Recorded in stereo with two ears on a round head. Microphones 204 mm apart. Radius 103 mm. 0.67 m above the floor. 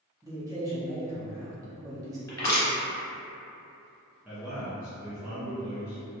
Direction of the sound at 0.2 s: 15° right (ahead or behind).